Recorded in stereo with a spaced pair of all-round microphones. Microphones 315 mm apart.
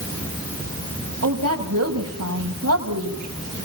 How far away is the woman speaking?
About 8 m.